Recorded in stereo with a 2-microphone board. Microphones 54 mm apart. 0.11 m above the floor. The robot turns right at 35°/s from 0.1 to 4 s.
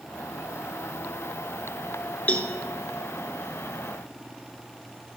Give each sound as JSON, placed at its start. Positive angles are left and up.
{"t": 2.3, "sound": "a cowbell", "side_deg": 30, "distance_m": 0.6}